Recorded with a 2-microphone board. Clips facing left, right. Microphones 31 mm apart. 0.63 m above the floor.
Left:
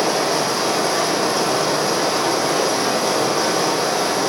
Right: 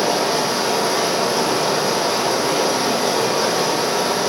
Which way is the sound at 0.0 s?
15° right (ahead or behind).